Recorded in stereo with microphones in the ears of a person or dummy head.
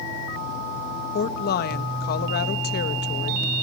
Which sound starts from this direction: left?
A woman speaking, at 1.1 s.